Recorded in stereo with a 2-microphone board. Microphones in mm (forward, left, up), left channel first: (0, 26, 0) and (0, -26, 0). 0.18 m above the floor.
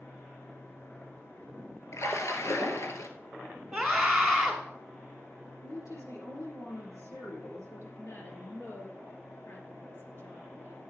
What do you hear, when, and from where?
1.9 s a splash: 65° left (ahead or behind), 1.7 m
3.7 s a scream: centre (ahead or behind), 1.5 m
5.6 s a woman speaking: 75° left (ahead or behind), 5 m
8.0 s a woman speaking: 40° left (ahead or behind), 3.5 m